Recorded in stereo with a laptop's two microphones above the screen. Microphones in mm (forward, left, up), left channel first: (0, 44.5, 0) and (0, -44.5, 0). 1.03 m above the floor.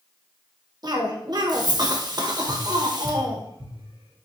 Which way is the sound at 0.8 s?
50° right (ahead or behind).